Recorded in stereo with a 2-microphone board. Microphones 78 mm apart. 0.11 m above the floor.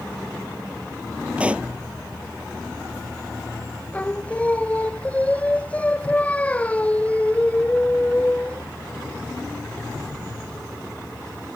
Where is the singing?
20° left (ahead or behind).